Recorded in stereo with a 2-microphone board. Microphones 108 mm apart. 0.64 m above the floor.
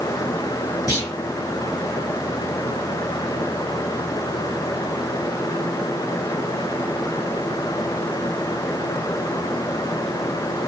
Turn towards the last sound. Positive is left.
turn(degrees=30)  # may be behind; listen again after turning